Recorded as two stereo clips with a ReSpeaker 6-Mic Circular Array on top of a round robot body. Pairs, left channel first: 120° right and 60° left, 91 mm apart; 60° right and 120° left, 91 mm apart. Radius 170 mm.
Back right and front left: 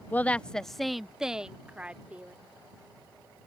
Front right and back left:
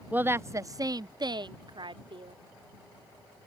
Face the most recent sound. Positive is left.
turn(degrees=135)